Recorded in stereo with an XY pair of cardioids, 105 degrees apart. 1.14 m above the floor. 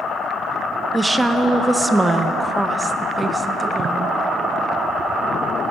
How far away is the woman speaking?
About 0.7 m.